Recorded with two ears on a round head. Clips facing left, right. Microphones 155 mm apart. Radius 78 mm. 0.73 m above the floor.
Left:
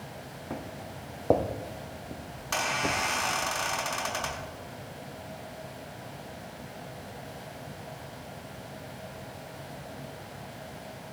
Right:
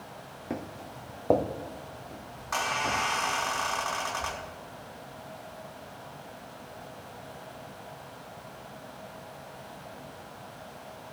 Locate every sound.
0.5 s footsteps: 25° right (ahead or behind), 2.5 m; by 3.0 s 50° left (ahead or behind), 3 m
2.4 s a squeak: 35° left (ahead or behind), 4 m